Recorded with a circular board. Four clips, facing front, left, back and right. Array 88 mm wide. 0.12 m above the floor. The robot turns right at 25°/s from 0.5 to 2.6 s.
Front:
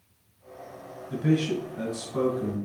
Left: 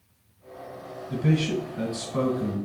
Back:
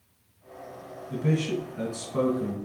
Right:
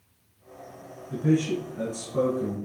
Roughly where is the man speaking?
Ahead left.